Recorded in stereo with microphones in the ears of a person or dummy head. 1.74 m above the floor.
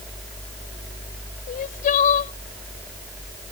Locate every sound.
1.5 s crying: 45° left (ahead or behind)